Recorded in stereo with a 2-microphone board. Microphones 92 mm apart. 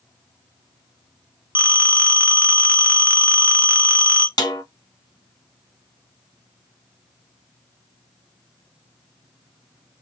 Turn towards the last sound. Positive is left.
turn(degrees=50)  # may be behind; listen again after turning